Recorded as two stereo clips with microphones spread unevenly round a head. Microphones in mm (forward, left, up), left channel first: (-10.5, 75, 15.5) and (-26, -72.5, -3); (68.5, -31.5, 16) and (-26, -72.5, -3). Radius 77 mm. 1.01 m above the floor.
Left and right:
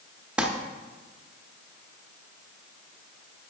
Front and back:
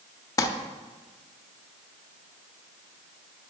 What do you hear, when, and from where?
0.4 s crumpling: 10° right, 0.6 m